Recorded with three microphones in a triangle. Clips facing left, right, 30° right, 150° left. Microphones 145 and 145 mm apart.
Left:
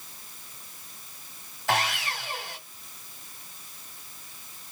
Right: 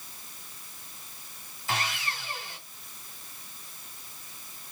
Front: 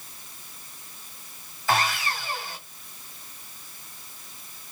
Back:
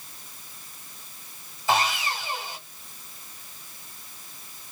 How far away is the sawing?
About 2.5 m.